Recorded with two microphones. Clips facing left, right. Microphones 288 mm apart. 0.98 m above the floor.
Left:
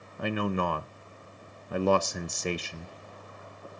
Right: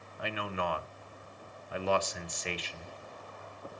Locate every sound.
0.2 s a man speaking: 55° left (ahead or behind), 0.6 m